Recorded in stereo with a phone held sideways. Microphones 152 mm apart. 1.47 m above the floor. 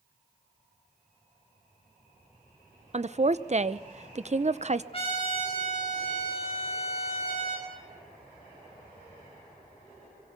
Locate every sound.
2.9 s a woman speaking: 45° right (ahead or behind), 0.7 m
4.9 s a trumpet: 40° left (ahead or behind), 6.5 m